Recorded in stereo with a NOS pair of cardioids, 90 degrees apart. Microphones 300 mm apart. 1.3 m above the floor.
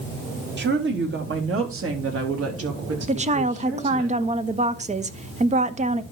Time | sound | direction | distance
0.6 | a woman speaking | 35° right | 3 m
3.1 | a woman speaking | 25° right | 1.1 m